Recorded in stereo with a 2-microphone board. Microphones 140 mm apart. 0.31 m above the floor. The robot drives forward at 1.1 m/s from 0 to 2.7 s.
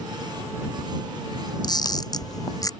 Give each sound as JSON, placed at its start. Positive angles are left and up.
{"t": 1.6, "sound": "a camera shutter", "side_deg": 30}